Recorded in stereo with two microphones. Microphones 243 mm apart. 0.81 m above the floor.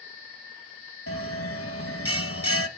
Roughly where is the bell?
Left.